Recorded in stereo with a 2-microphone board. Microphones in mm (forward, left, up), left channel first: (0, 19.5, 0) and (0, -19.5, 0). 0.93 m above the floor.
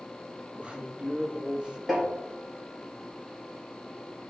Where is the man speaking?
30° right (ahead or behind), 1.3 m.